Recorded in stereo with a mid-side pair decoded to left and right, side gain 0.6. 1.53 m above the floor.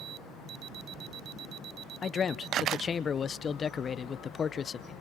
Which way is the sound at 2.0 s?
35° left.